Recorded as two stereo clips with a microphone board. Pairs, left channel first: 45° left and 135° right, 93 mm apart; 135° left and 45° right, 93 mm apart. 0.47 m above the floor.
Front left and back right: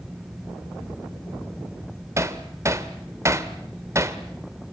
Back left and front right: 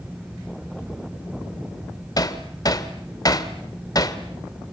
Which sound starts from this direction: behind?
Hammering, at 2.2 s.